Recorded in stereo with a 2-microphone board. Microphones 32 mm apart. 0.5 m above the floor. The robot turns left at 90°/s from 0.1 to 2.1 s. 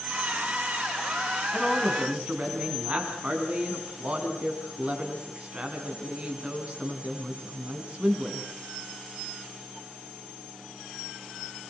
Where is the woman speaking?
10° left, 5.5 m; by 8.5 s 40° right, 5.5 m.